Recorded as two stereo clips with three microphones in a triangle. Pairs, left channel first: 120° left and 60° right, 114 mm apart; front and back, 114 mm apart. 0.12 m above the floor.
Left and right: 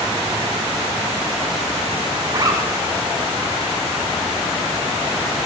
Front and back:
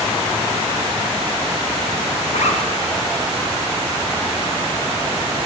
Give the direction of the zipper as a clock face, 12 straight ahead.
12 o'clock.